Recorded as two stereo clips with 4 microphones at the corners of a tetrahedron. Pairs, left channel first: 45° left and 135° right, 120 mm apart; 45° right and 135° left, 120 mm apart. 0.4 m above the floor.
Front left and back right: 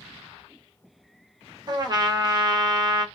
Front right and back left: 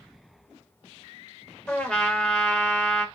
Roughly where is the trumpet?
Behind right.